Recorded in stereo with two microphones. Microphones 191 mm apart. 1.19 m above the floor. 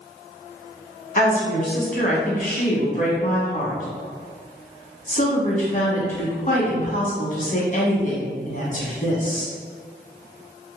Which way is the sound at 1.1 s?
45° left (ahead or behind).